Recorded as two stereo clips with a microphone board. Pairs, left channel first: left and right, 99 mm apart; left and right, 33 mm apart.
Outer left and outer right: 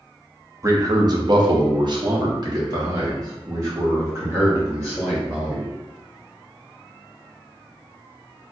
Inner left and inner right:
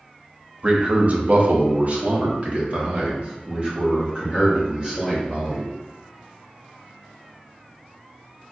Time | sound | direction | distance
0.6 | a man speaking | 30° right (ahead or behind) | 0.7 m